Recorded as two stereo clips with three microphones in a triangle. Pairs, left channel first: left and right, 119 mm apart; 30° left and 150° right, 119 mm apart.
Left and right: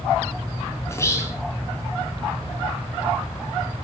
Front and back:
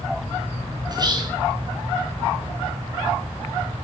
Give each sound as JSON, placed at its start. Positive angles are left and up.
{"t": 0.9, "sound": "whispering", "azimuth_deg": 155, "distance_m": 3.5}